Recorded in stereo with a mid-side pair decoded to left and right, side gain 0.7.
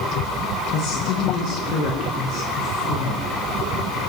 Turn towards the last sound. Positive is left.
turn(degrees=55)